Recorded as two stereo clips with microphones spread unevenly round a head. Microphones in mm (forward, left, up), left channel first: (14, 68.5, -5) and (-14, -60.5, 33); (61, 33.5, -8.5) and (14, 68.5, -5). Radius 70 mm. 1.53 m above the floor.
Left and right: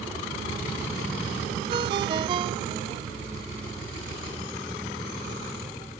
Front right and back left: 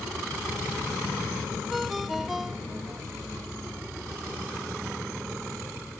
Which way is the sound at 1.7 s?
130° right.